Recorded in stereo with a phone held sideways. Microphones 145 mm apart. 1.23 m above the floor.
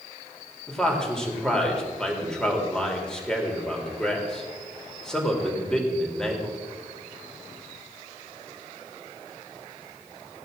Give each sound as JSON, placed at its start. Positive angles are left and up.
{"t": 0.7, "sound": "a man speaking", "side_deg": 5, "distance_m": 3.5}